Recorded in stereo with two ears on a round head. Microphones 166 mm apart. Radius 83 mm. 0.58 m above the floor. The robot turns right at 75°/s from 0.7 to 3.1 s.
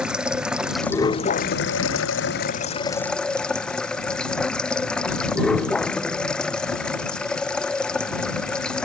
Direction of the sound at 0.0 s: 5° right.